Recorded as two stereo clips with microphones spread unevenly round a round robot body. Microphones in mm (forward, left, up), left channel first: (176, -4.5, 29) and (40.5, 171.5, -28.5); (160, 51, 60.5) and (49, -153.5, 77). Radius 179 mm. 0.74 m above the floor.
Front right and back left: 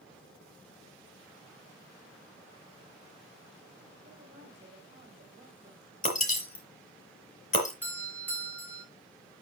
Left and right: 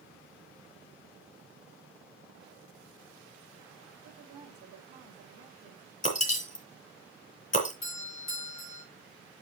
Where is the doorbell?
35° left, 3 m.